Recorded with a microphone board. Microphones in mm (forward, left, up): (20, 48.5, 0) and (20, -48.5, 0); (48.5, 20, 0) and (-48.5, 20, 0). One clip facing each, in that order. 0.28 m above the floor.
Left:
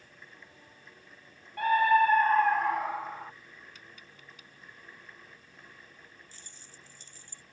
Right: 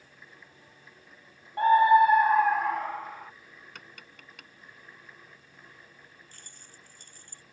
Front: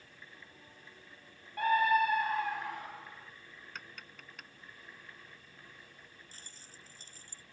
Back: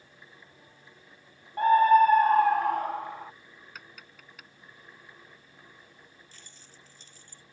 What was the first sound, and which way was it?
A scream, 135° right.